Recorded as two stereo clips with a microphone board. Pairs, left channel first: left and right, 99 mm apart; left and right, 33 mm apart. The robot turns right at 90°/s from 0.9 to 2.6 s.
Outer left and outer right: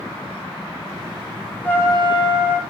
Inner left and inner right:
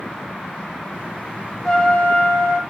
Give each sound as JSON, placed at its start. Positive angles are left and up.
{"t": 1.6, "sound": "a trumpet", "azimuth_deg": 15, "distance_m": 5.0}